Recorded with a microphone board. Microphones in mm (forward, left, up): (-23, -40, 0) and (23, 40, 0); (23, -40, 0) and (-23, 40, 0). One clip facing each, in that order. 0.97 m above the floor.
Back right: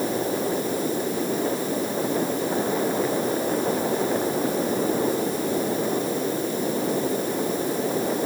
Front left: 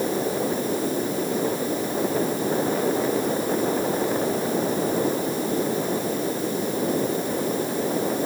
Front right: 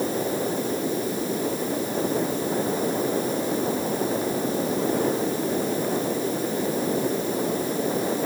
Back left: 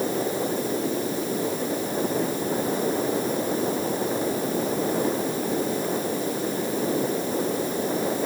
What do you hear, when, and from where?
Only background noise.